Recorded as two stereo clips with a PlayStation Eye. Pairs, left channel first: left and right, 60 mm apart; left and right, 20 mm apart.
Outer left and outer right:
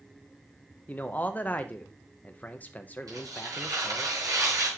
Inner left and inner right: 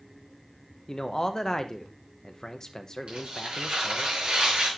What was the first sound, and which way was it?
A man speaking, 25° left (ahead or behind).